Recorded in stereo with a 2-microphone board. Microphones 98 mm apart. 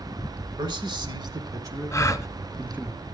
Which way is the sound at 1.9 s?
30° left (ahead or behind).